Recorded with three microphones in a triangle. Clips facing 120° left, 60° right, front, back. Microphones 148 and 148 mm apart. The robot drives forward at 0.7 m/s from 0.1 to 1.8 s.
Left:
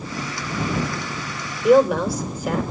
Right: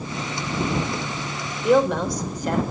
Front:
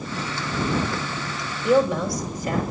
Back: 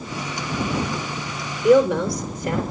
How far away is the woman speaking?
About 4.5 m.